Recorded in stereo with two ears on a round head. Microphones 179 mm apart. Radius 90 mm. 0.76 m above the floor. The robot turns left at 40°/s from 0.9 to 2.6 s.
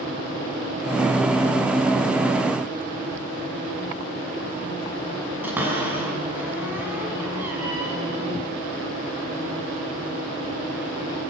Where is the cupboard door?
10° right (ahead or behind), 5.5 m.